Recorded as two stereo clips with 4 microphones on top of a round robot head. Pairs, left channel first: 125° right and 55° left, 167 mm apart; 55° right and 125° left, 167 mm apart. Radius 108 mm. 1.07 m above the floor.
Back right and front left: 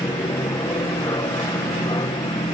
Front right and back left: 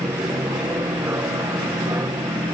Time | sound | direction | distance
0.0 | an aircraft | 175° right | ?